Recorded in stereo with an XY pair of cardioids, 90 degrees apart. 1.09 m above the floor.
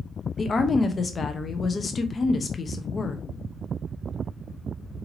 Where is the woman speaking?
40° left, 0.8 m.